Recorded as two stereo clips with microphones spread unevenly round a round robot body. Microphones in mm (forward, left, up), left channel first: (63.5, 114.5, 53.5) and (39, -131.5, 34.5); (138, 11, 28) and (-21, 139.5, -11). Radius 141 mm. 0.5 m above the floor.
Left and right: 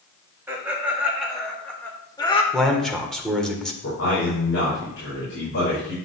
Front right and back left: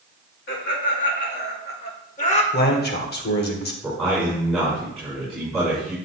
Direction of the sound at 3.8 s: 50° left.